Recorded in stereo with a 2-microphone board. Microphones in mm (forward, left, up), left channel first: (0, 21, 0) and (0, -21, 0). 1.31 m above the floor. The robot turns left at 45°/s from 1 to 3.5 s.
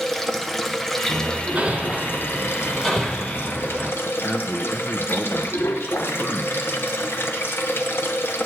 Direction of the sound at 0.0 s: 175° left.